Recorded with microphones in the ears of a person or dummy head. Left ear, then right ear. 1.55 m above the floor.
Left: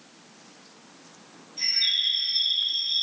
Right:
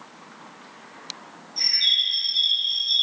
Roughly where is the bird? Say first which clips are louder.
Right 4 dB; right.